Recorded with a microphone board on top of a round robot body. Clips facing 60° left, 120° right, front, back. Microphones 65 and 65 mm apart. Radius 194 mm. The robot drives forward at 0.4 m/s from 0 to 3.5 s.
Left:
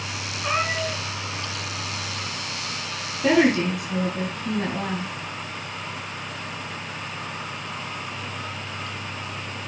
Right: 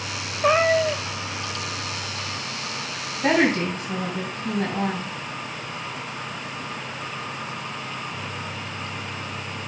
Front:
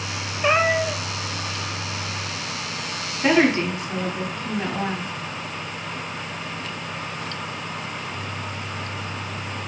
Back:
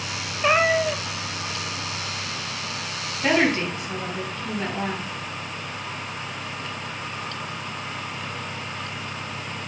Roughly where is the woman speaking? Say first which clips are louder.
Left 1 dB, front 3 dB; right.